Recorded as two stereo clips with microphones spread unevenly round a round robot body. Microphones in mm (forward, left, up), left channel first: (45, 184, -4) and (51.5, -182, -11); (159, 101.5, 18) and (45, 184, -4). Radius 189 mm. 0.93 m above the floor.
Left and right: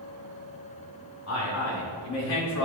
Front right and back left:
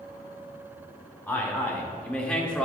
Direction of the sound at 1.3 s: 45° left.